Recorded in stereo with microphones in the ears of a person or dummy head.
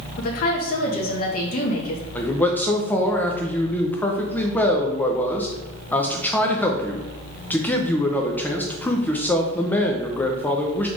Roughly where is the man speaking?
Centre.